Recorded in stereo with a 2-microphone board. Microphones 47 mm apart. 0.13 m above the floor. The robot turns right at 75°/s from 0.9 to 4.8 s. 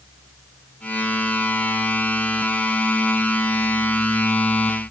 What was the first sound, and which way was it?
Only background noise.